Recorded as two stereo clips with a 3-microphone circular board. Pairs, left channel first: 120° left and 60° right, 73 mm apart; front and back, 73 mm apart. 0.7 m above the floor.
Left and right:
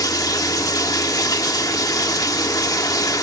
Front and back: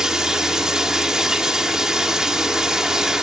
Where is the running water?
100° left, 1.3 m.